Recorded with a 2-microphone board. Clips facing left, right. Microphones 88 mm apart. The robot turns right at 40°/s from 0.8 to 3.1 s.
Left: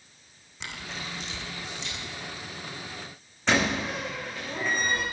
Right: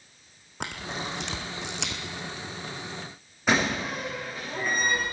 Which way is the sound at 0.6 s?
55° right (ahead or behind).